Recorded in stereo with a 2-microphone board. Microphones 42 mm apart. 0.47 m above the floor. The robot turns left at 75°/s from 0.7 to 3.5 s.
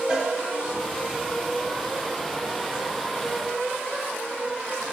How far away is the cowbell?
About 4.5 m.